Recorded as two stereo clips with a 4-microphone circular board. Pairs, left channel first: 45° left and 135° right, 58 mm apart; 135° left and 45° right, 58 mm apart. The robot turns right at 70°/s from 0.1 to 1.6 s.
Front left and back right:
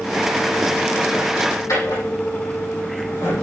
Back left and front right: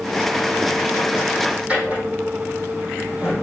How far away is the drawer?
About 6 m.